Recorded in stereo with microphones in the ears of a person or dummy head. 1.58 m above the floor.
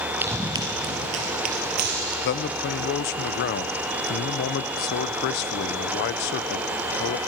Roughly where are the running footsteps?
Centre.